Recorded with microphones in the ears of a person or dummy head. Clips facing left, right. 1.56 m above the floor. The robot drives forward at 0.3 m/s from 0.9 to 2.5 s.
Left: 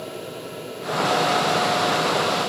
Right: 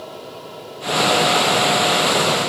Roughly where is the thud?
I don't hear a thud.